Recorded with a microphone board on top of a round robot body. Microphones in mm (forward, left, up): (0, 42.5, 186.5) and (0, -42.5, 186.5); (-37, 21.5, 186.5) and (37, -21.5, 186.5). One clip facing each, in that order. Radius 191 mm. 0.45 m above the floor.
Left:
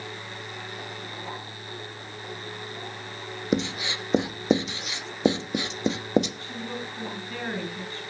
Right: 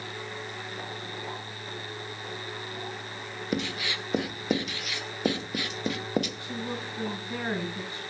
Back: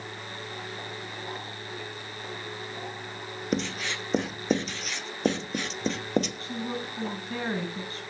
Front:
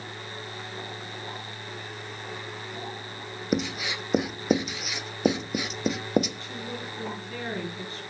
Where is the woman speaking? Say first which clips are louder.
Even, back 3 dB; 160° right, 7 m.